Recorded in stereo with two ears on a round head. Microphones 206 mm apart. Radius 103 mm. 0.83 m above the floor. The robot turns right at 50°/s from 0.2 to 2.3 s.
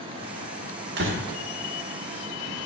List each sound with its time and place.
1.0 s a door slam: 45° right (ahead or behind), 1.5 m; by 1.2 s 60° right (ahead or behind), 1.5 m